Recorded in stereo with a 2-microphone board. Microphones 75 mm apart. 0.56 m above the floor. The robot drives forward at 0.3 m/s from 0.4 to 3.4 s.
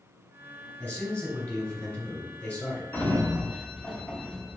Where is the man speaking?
15° left (ahead or behind), 1.8 m.